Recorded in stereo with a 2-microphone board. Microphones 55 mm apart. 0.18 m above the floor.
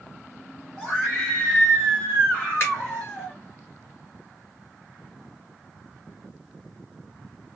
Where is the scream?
10° left (ahead or behind), 1.8 m; by 3.4 s 20° left (ahead or behind), 1.8 m.